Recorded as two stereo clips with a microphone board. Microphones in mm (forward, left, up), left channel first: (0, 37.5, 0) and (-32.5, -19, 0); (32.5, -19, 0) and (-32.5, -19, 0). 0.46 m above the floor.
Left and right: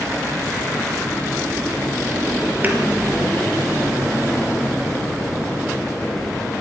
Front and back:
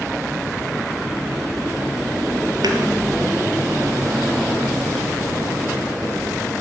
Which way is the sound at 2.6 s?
Straight behind.